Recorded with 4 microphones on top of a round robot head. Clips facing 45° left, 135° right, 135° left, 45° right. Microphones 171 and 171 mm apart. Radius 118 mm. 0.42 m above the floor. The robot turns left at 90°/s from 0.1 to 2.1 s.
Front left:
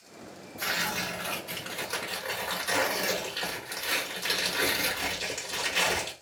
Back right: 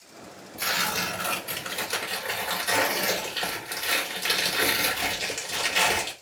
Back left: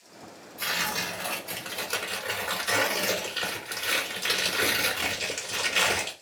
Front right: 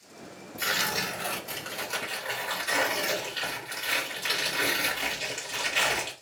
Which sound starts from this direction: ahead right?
Tearing paper, at 0.6 s.